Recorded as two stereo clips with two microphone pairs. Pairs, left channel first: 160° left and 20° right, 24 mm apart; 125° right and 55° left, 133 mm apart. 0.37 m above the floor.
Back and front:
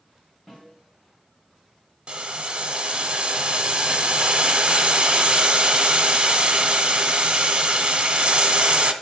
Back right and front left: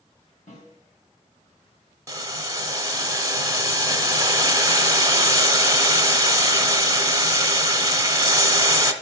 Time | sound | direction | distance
0.5 | a snare drum | 115° right | 3.5 m
2.1 | boiling | straight ahead | 0.9 m